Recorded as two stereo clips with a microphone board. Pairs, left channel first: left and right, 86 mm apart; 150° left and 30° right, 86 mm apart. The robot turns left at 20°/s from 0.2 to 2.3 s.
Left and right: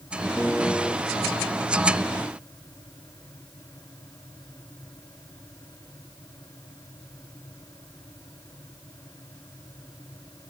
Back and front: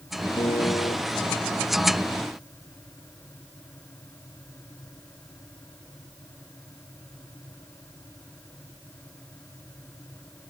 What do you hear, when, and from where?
0.4 s a piano: straight behind; by 1.0 s 170° left